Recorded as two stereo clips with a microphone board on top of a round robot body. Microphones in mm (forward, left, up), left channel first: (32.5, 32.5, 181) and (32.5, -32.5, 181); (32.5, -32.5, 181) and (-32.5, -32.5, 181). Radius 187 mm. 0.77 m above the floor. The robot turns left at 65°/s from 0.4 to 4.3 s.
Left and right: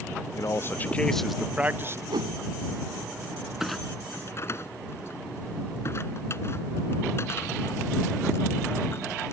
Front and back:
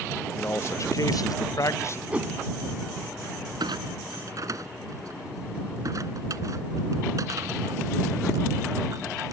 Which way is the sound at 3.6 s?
175° right.